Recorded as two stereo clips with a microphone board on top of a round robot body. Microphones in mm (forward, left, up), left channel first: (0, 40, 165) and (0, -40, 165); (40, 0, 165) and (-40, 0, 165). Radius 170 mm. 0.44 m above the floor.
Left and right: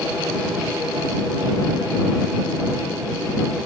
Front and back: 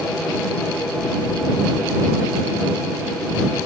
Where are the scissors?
I don't hear scissors.